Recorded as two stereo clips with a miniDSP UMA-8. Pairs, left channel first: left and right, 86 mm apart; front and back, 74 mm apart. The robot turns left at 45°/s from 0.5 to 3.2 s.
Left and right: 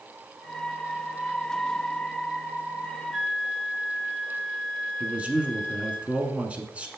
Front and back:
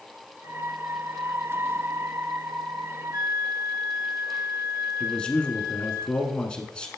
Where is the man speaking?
50° right, 1.1 m.